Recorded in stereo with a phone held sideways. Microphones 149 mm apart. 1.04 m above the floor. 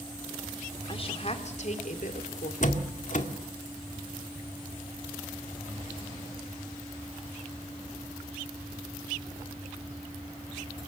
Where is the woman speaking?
35° left (ahead or behind), 3 m; by 2.5 s 65° left (ahead or behind), 3 m.